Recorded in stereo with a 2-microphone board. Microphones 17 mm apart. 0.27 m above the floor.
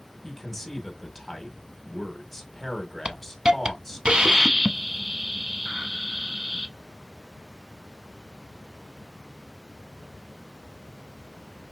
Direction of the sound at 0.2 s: 10° left (ahead or behind).